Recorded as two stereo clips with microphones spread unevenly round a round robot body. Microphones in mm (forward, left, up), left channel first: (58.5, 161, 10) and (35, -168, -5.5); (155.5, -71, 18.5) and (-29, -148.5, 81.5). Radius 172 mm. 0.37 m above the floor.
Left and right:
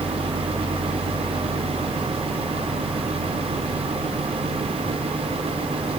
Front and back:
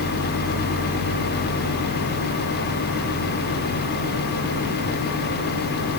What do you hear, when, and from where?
0.0 s an engine running: straight behind